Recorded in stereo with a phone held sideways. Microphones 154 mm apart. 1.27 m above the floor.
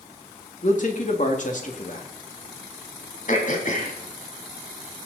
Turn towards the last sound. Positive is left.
turn(degrees=60)  # may be behind; listen again after turning